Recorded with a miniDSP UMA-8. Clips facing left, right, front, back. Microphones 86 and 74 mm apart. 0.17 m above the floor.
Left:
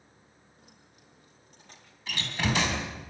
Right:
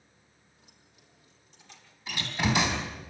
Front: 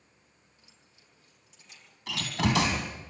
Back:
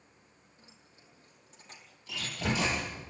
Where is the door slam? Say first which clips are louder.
Right 1 dB, front 5 dB; 5° right, 4 m.